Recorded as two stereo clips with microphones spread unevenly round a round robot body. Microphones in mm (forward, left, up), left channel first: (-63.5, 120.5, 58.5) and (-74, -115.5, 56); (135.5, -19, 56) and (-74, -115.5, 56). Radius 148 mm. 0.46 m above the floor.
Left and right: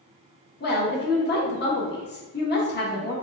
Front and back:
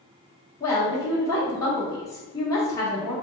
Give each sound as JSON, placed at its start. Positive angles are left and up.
{"t": 0.6, "sound": "a woman speaking", "azimuth_deg": 95, "distance_m": 1.0}